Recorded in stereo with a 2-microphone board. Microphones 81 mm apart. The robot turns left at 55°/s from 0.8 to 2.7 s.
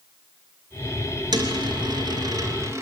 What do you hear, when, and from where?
1.3 s a dropped coin: 60° right (ahead or behind), 3 m; by 2.8 s 30° right (ahead or behind), 3 m